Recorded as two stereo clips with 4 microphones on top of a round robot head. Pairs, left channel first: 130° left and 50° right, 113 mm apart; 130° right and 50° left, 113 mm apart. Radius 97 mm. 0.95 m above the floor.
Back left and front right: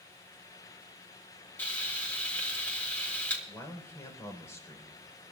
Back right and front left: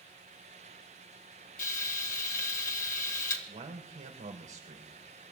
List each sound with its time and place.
1.6 s frying: 150° right, 1.9 m
3.5 s a man speaking: 65° left, 4 m